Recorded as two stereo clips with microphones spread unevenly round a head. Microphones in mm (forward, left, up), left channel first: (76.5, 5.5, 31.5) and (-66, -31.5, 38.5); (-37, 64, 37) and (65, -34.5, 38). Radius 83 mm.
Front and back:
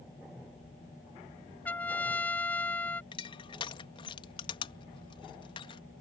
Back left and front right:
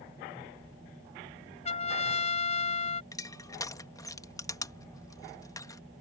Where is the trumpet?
95° left.